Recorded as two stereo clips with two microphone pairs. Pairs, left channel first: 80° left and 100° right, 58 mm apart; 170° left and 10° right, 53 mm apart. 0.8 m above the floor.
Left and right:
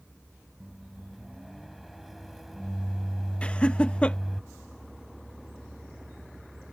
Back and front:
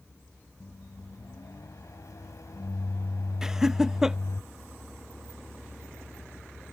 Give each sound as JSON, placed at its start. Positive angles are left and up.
{"t": 0.6, "sound": "a microwave", "azimuth_deg": 170}
{"t": 3.4, "sound": "laughter", "azimuth_deg": 50}